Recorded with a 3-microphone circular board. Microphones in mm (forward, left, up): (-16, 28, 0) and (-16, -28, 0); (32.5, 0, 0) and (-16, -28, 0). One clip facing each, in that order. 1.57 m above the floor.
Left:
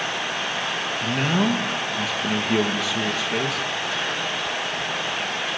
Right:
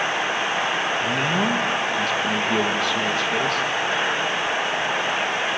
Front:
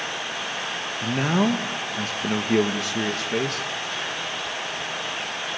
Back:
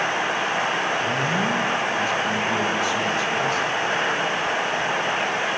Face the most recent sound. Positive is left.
turn(degrees=5)